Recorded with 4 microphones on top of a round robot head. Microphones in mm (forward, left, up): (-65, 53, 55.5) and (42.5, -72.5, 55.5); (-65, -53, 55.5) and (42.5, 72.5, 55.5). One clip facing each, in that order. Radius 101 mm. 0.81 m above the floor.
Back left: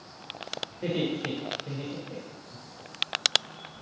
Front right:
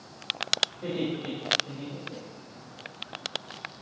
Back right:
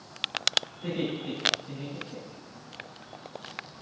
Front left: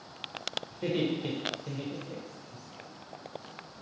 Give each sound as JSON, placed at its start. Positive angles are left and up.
{"t": 0.7, "sound": "laughter", "azimuth_deg": 65, "distance_m": 2.5}